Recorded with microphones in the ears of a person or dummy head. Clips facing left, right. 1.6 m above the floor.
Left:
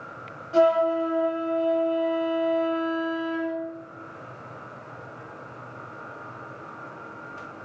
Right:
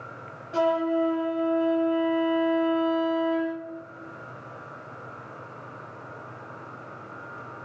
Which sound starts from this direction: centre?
A flute, at 0.5 s.